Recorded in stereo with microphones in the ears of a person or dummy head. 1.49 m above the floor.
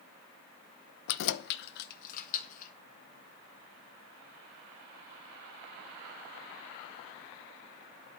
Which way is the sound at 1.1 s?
65° left (ahead or behind).